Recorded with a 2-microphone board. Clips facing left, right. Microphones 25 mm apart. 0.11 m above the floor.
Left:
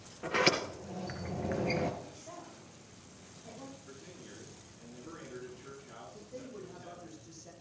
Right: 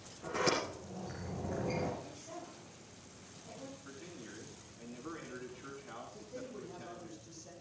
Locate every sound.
0.2 s a sliding door: 50° left (ahead or behind), 2.5 m
2.0 s a woman speaking: 30° left (ahead or behind), 7.5 m
3.9 s a man speaking: 60° right (ahead or behind), 8 m
6.1 s a man speaking: centre (ahead or behind), 5.5 m